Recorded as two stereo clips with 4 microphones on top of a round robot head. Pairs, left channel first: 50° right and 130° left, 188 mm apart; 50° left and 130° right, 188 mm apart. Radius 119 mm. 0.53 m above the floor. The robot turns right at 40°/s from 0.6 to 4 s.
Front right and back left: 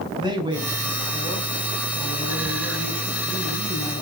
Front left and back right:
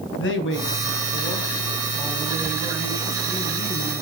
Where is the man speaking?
65° left, 4 m; by 4.0 s 160° right, 4 m.